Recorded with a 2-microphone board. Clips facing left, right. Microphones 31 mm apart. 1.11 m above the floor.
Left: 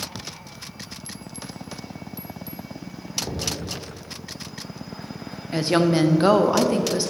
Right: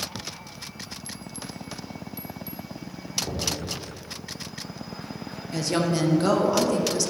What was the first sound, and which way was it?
Knocking, 10° left (ahead or behind).